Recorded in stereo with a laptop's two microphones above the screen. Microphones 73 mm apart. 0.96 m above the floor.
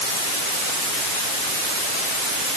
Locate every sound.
Only background noise.